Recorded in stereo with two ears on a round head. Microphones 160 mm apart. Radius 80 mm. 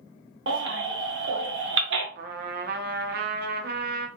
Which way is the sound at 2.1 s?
55° right (ahead or behind).